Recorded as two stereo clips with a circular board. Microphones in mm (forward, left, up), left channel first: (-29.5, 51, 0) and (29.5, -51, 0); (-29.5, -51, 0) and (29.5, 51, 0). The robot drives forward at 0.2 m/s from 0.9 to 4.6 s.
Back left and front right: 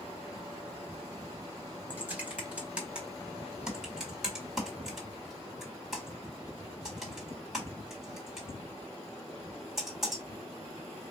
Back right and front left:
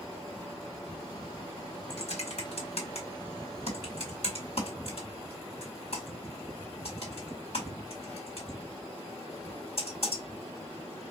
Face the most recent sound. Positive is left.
turn(degrees=-150)